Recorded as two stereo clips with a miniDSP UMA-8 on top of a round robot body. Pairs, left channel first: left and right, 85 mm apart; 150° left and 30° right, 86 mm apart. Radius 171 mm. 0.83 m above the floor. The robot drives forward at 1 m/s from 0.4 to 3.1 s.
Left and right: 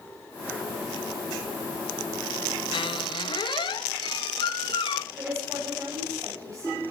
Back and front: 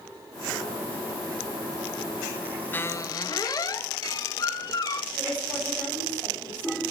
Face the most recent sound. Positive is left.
turn(degrees=-140)